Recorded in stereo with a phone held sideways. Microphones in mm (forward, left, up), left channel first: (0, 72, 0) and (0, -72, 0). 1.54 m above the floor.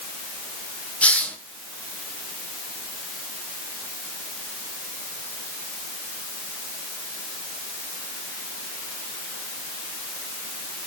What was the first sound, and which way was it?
A hiss, 10° left (ahead or behind).